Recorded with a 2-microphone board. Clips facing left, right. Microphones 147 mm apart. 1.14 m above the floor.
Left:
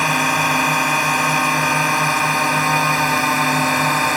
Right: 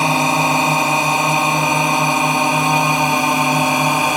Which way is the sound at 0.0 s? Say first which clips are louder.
Right 3 dB; 25° right (ahead or behind).